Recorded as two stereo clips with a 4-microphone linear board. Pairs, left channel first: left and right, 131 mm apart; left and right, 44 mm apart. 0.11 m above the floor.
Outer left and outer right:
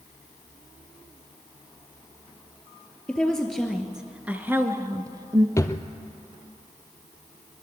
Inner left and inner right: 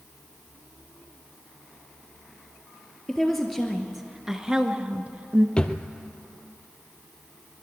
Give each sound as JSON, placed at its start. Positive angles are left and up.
{"t": 3.1, "sound": "a woman speaking", "side_deg": 5, "distance_m": 2.5}
{"t": 5.6, "sound": "a drawer", "side_deg": 25, "distance_m": 1.3}